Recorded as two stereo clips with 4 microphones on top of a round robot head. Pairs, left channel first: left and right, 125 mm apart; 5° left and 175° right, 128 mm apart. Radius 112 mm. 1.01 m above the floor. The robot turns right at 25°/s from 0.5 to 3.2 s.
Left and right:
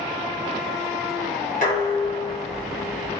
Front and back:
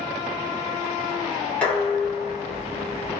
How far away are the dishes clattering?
About 1.5 m.